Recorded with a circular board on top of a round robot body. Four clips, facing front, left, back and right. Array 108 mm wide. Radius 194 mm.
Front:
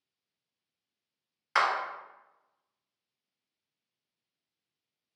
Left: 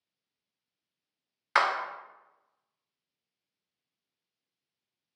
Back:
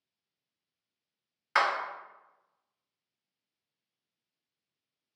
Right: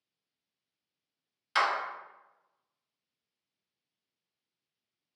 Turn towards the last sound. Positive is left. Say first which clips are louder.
# left 3 dB, even
turn(degrees=95)